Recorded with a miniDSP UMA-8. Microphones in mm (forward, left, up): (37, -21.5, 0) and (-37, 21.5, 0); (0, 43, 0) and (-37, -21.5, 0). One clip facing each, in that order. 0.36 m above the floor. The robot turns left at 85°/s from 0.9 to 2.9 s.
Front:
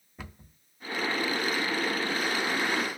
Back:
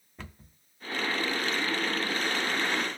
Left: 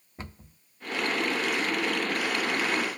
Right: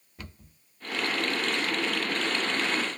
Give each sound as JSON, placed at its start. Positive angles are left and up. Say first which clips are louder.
{"t": 0.2, "sound": "a cupboard door", "louder": "front 1 dB, left 3 dB", "azimuth_deg": 50, "distance_m": 0.6}